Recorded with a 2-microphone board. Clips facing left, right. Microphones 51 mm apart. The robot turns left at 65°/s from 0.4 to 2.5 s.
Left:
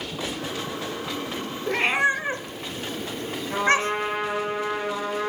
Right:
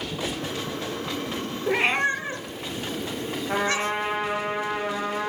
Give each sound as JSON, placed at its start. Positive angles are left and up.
{"t": 1.7, "sound": "a cat meowing", "side_deg": -10, "distance_m": 0.6}
{"t": 3.5, "sound": "a trumpet", "side_deg": -50, "distance_m": 3.0}